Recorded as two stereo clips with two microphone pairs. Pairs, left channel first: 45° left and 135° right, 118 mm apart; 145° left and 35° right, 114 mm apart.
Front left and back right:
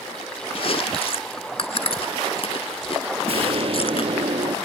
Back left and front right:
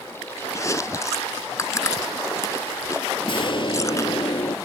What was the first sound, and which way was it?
Chewing, 80° left.